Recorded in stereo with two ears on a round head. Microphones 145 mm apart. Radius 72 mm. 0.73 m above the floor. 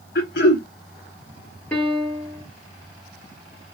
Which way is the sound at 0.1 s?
75° left (ahead or behind).